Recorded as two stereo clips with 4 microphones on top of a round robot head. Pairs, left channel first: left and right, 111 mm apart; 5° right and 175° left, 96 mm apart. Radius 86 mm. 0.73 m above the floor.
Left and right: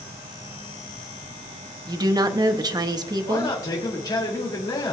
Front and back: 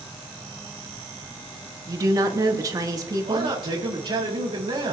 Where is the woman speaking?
135° right, 1.1 m.